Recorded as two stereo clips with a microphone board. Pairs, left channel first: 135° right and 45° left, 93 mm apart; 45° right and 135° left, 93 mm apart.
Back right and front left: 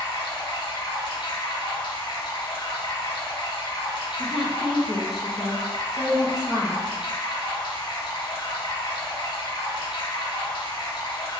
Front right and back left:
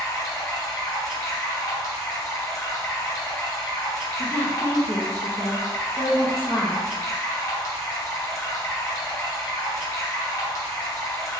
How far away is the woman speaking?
About 0.9 m.